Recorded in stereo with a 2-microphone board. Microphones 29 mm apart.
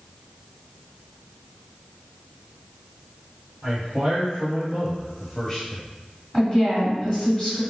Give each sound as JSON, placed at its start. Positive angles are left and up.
{"t": 3.6, "sound": "a man speaking", "side_deg": -50, "distance_m": 1.9}
{"t": 6.3, "sound": "a woman speaking", "side_deg": 5, "distance_m": 1.9}